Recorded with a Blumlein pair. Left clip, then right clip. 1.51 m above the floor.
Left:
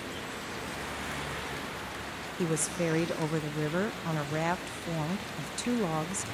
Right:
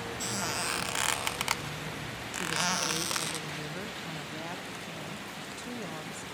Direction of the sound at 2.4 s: 60° left.